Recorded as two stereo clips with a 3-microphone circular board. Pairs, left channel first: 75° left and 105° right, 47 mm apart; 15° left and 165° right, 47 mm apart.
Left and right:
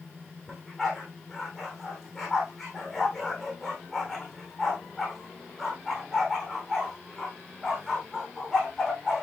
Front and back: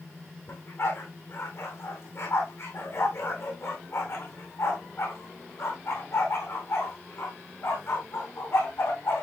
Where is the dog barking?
5° right, 4 m.